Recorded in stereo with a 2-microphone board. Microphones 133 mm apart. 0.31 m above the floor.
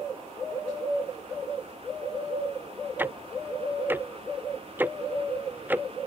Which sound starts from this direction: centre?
Ticking, at 3.0 s.